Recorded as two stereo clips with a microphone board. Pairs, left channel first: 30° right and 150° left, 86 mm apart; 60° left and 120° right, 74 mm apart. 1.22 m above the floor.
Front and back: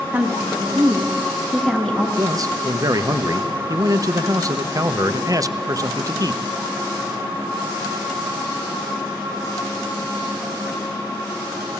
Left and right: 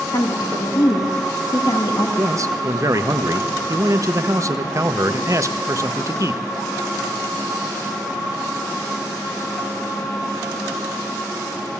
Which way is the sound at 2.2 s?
165° right.